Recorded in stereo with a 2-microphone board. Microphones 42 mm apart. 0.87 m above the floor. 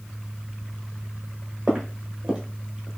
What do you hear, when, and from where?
1.7 s footsteps: 20° right (ahead or behind), 1.4 m; by 2.9 s 15° right (ahead or behind), 0.8 m